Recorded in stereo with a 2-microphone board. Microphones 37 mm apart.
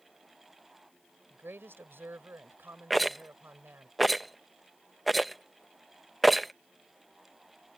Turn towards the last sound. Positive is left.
turn(degrees=0)  # may be behind; listen again after turning